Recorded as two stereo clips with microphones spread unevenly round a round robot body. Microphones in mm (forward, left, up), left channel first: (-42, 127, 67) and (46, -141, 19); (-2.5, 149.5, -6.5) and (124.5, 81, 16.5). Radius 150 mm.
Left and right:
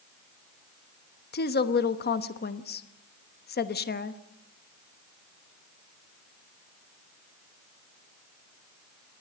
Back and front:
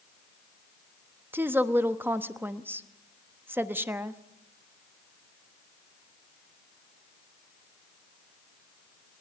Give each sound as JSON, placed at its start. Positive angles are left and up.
{"t": 1.3, "sound": "a woman speaking", "azimuth_deg": 55, "distance_m": 1.1}